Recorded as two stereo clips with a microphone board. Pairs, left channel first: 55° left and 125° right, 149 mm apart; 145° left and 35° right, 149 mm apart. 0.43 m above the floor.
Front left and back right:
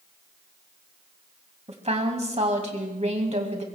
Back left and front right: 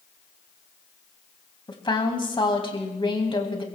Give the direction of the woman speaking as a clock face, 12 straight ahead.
5 o'clock.